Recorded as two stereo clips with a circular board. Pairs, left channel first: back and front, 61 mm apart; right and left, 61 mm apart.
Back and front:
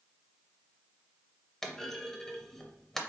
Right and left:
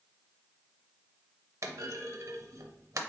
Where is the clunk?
100° left, 0.5 m.